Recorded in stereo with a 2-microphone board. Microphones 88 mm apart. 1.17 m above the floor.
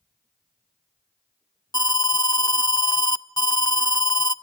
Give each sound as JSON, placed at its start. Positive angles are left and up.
{"t": 1.7, "sound": "an alarm", "side_deg": 50, "distance_m": 0.6}